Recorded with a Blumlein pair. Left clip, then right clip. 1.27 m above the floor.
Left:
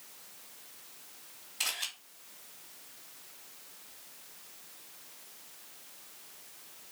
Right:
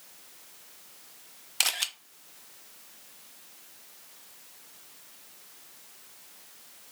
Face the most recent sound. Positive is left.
turn(degrees=-55)